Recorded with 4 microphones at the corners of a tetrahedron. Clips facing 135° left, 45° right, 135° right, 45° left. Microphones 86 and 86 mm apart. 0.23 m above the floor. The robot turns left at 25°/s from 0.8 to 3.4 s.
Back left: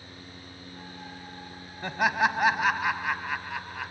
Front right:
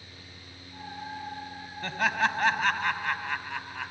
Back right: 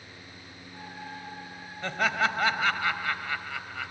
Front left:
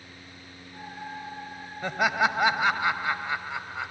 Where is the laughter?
95° left, 0.9 m; by 3.9 s 55° left, 0.9 m.